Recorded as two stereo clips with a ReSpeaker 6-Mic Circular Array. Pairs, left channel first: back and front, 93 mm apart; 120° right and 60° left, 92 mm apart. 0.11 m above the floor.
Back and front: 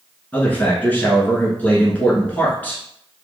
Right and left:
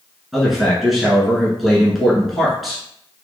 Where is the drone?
I don't hear a drone.